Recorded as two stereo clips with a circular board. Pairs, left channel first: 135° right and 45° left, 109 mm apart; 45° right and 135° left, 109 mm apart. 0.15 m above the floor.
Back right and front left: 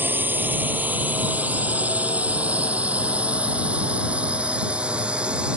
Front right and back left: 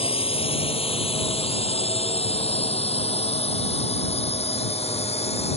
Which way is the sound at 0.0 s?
25° right.